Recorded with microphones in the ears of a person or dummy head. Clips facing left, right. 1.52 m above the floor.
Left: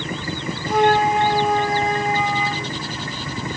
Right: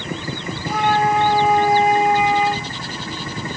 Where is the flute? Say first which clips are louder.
Left 2 dB; 10° right (ahead or behind), 5.5 m.